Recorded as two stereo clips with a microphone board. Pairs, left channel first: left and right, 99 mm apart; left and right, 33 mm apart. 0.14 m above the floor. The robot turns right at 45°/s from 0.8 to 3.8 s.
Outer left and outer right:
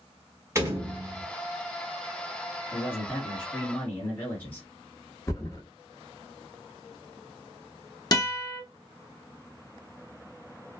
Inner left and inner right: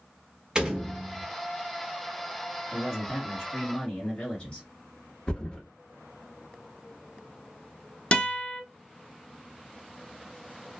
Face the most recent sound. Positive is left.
turn(degrees=35)  # may be behind; listen again after turning